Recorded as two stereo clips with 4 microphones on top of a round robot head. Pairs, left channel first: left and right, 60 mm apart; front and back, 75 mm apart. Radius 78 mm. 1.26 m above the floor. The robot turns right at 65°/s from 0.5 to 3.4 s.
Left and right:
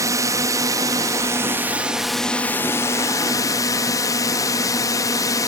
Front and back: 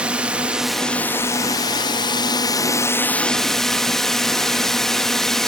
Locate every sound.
0.0 s a drone: 105° right; by 5.5 s 85° left